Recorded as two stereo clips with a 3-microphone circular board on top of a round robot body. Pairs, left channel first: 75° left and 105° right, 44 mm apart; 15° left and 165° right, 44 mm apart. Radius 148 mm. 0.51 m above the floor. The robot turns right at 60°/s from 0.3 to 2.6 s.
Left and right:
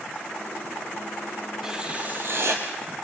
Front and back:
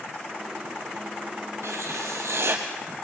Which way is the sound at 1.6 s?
175° left.